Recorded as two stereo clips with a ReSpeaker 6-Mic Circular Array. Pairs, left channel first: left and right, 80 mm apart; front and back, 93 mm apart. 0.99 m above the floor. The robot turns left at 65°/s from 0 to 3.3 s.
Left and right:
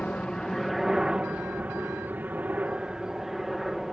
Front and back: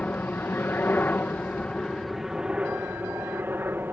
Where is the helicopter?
45° left; by 3.9 s 170° right.